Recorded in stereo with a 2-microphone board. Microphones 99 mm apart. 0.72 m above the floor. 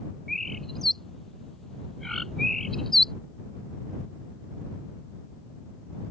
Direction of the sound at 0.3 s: 5° left (ahead or behind).